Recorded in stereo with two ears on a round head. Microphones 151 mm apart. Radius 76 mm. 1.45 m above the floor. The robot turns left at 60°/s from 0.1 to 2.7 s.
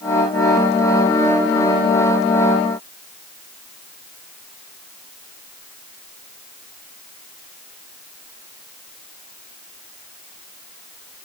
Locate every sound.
Only background noise.